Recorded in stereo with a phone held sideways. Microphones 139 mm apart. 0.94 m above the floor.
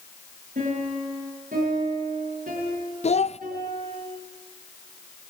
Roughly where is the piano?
Right.